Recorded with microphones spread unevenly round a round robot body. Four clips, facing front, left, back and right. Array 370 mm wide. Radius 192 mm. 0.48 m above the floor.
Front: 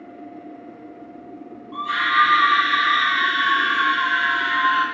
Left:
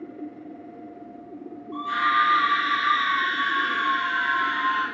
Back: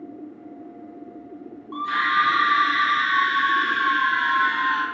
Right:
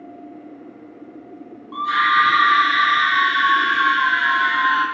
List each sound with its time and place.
1.7 s a scream: 125° right, 3 m